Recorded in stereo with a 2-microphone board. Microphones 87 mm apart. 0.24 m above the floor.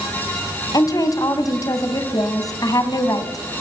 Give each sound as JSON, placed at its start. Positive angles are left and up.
{"t": 0.7, "sound": "a woman speaking", "side_deg": 45, "distance_m": 2.0}